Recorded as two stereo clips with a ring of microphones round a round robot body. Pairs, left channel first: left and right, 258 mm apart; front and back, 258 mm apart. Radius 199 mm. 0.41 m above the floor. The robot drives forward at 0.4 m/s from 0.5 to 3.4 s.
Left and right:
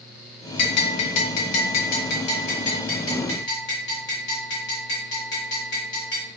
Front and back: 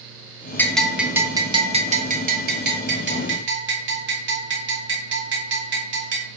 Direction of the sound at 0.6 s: 85° left.